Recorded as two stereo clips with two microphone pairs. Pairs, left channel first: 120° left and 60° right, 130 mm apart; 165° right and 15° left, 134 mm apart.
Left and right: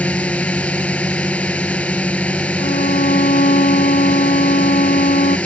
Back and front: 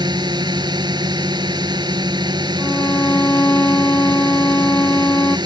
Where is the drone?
45° left.